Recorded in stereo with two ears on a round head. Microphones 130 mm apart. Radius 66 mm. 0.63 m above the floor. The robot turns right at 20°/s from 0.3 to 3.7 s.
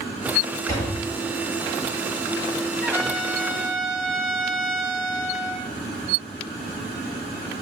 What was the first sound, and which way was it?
A door slam, 20° left (ahead or behind).